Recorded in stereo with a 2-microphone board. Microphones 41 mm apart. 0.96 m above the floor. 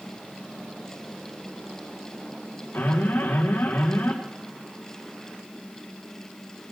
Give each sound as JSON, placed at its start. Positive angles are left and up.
{"t": 2.7, "sound": "an alarm", "side_deg": 75, "distance_m": 4.0}